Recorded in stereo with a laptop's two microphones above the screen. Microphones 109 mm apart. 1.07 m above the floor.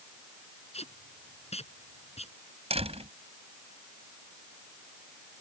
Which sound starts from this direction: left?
Tape being pulled, at 0.7 s.